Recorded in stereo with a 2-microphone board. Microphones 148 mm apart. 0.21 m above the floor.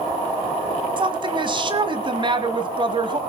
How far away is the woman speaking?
About 1.6 m.